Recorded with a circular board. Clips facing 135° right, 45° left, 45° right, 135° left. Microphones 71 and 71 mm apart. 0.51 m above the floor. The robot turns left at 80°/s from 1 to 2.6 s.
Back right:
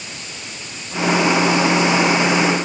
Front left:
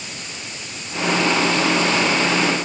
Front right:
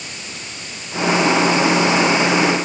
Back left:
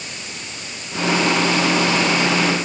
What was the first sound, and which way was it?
Only background noise.